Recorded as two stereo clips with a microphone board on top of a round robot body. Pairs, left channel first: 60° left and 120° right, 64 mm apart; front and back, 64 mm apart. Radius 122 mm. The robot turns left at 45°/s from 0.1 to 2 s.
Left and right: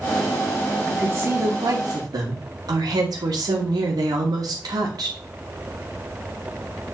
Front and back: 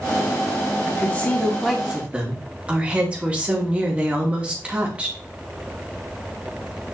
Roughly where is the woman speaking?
Ahead right.